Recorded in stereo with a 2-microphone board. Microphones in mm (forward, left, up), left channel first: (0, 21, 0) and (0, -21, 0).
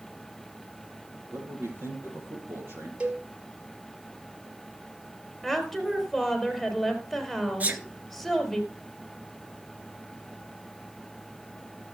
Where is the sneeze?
35° right (ahead or behind), 2.5 m.